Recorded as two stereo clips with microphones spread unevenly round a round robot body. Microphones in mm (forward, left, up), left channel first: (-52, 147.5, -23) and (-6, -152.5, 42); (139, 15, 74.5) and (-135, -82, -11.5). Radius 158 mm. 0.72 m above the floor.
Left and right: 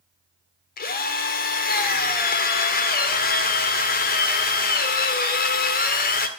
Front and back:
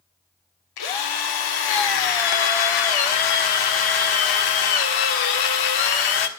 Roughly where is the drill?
Ahead left.